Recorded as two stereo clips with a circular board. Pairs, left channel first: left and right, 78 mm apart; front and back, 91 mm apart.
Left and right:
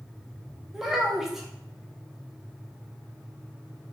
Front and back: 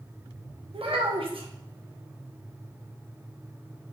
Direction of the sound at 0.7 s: 175° right.